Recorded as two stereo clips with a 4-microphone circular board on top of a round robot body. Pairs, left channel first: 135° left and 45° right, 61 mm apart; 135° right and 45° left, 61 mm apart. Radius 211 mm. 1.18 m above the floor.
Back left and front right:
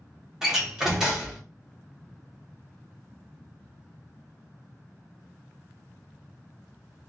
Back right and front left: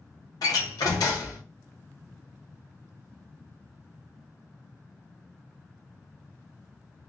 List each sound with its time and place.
0.4 s a door slam: 125° right, 0.7 m